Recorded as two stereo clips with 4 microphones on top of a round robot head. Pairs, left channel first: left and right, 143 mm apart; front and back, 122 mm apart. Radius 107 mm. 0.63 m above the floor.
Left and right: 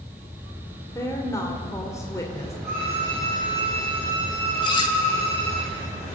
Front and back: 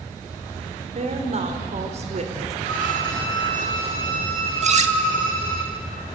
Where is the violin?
165° right, 8 m.